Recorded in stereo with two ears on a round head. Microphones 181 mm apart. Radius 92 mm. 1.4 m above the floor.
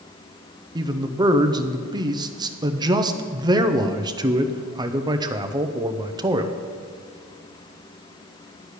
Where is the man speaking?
20° right (ahead or behind), 0.8 m.